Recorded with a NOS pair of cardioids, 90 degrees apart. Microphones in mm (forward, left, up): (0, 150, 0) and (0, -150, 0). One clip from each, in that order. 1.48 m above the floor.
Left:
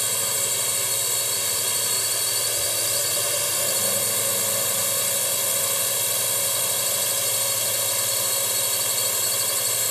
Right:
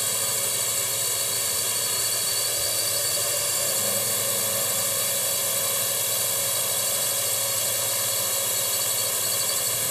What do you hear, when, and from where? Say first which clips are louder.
0.0 s a drone: left 2 dB; 40° left